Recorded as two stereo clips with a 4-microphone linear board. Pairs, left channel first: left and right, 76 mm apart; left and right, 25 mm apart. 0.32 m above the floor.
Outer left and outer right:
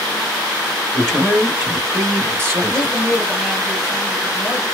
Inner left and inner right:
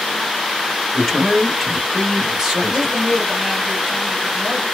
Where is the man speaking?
10° left (ahead or behind), 1.0 m; by 3.0 s 45° right (ahead or behind), 1.3 m.